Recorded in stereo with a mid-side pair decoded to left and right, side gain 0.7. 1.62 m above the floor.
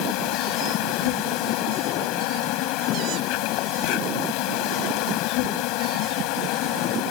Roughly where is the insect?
Ahead left.